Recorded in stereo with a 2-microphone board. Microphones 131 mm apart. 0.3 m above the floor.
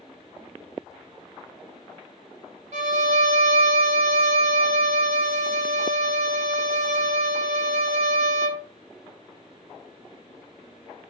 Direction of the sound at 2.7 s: 65° right (ahead or behind).